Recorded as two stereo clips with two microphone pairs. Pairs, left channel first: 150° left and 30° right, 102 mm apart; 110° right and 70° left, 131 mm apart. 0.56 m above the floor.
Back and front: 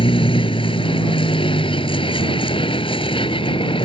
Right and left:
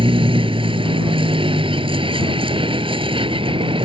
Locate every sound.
0.0 s a vehicle: 120° left